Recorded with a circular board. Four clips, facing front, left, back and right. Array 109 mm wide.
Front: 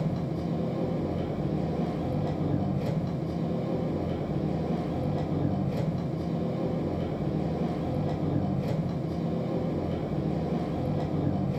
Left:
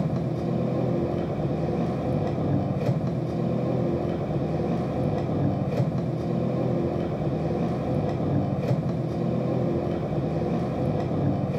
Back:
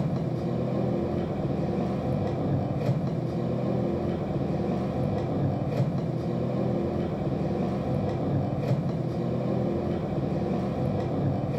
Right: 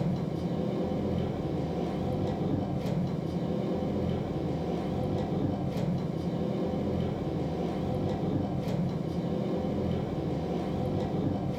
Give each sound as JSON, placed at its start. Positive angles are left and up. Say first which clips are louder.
{"t": 0.0, "sound": "an engine running", "louder": "left 4 dB, back 2 dB", "azimuth_deg": 110, "distance_m": 1.0}